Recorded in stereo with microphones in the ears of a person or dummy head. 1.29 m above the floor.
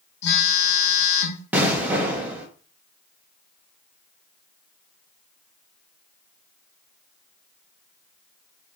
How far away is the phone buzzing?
About 1.7 m.